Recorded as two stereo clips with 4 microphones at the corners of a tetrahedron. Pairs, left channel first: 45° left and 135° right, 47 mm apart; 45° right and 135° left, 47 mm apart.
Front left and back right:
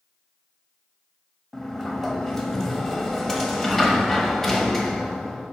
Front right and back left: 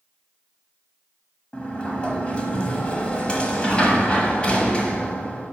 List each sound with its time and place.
1.5 s a sliding door: 25° right, 1.1 m